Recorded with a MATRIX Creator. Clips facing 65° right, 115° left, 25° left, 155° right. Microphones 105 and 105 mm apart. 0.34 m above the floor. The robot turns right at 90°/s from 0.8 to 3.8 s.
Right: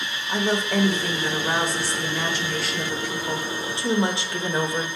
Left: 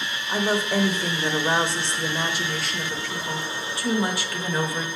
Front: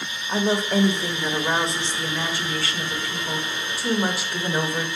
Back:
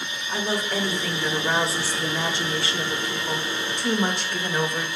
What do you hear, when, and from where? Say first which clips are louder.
0.3 s a woman speaking: even, front 5 dB; 40° left, 0.9 m; by 4.9 s 50° right, 0.9 m